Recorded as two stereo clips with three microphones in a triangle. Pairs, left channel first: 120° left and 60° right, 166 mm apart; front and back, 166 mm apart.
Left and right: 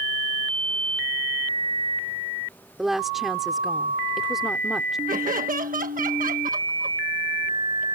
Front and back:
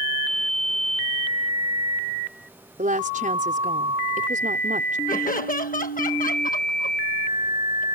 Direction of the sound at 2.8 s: 150° right.